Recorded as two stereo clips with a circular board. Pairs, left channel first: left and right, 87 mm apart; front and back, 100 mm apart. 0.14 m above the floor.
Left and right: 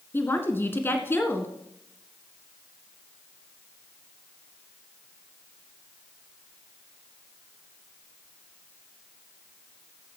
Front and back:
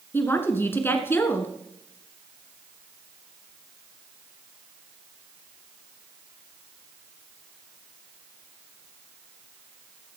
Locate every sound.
0.1 s a woman speaking: 50° left, 1.5 m